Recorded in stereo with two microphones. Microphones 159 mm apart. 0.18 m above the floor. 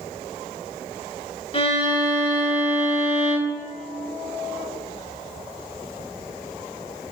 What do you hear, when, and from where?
1.5 s a violin: 35° left (ahead or behind), 1.0 m